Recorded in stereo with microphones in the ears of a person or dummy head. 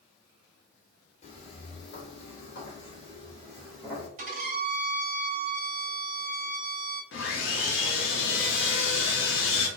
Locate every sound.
1.2 s footsteps: 40° left (ahead or behind), 1.5 m; by 4.1 s 5° right (ahead or behind), 1.2 m
4.2 s a violin: 50° right (ahead or behind), 1.6 m
7.1 s sawing: 65° left (ahead or behind), 1.0 m